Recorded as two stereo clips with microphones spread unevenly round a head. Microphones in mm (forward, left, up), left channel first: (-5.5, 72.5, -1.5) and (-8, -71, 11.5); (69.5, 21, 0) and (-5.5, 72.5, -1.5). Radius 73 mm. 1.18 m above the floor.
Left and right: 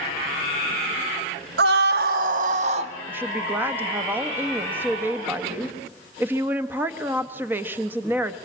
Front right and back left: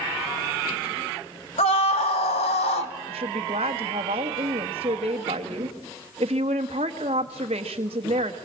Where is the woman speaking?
165° right, 1.3 m.